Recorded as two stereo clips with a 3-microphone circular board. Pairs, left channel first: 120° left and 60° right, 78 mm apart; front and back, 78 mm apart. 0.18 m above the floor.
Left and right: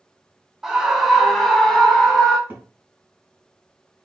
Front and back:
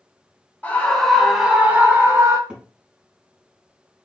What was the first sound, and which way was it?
A scream, 15° left.